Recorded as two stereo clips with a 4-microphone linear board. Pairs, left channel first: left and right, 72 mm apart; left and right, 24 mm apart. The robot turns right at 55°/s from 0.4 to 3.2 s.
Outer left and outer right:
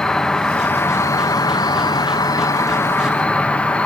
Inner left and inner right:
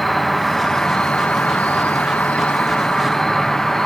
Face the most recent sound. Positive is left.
turn(degrees=160)